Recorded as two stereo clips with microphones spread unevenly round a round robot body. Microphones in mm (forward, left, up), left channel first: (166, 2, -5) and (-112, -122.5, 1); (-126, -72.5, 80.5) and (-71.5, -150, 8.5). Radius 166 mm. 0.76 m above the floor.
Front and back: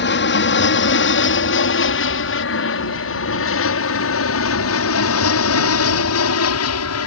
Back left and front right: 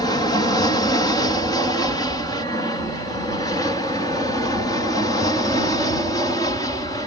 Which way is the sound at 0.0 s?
35° left.